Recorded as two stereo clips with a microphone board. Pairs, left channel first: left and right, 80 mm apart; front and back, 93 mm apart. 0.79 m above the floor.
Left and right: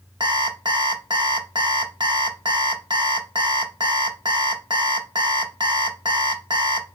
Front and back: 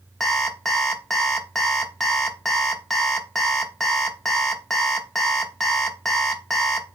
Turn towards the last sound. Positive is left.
turn(degrees=-85)